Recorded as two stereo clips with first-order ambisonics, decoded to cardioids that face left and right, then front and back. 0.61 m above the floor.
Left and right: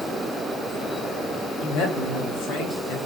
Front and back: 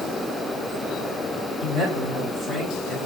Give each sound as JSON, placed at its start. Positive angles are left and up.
{"t": 1.6, "sound": "a man speaking", "azimuth_deg": 65, "distance_m": 3.0}